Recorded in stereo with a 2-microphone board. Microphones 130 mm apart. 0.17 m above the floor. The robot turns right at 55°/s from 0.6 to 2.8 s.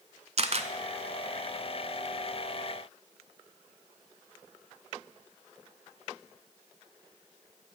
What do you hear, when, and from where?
0.4 s a camera shutter: 55° right (ahead or behind), 0.6 m; by 0.7 s 50° right (ahead or behind), 0.6 m